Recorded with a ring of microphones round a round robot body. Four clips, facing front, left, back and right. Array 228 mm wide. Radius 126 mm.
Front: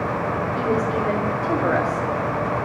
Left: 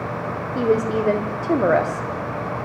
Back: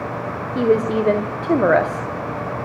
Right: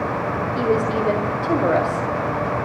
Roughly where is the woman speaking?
Behind.